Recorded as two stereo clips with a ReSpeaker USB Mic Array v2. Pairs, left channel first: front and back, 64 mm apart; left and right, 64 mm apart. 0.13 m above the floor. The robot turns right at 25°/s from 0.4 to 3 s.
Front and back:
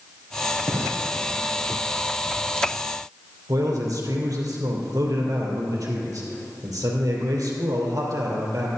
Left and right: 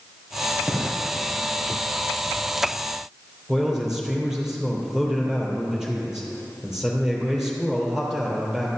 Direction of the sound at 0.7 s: 155° right.